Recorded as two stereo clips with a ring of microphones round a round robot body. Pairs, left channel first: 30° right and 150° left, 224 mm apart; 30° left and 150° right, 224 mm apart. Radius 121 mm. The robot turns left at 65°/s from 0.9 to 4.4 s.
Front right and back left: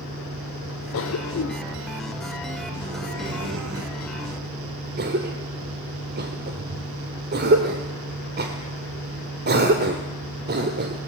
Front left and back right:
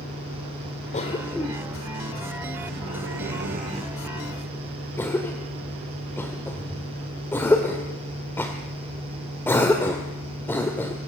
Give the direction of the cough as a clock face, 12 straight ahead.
1 o'clock.